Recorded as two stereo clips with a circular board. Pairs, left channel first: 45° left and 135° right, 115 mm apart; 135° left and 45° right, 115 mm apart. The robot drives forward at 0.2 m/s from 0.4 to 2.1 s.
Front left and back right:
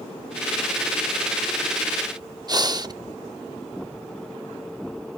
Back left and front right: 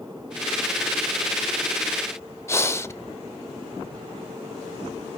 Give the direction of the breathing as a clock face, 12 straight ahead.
6 o'clock.